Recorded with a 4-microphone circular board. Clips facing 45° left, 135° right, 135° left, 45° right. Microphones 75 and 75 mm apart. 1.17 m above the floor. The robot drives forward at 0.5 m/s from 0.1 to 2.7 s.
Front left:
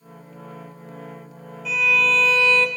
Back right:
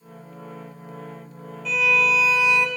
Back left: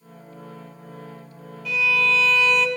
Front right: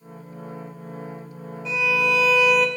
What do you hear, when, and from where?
1.6 s a violin: 40° right, 1.1 m; by 2.7 s 120° right, 1.0 m